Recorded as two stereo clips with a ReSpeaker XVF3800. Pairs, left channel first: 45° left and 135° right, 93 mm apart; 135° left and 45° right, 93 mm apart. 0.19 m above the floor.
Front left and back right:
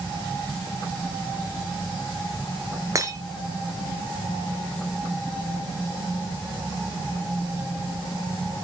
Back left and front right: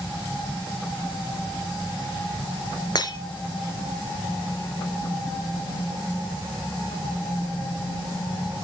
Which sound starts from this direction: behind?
Breaking glass, at 3.0 s.